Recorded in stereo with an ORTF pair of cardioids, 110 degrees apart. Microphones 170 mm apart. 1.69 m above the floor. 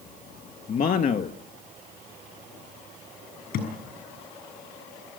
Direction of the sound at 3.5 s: 70° left.